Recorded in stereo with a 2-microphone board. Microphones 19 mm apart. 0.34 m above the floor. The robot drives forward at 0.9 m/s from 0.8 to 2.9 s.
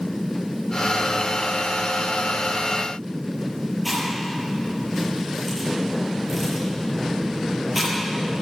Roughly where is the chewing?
Centre.